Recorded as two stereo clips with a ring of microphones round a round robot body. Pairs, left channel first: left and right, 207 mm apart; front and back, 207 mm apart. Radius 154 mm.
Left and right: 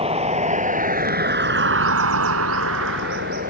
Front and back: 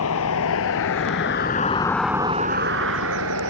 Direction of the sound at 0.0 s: 30° right.